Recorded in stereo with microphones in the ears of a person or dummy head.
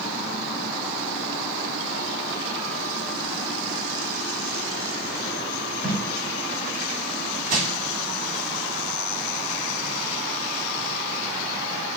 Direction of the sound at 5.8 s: 20° right (ahead or behind).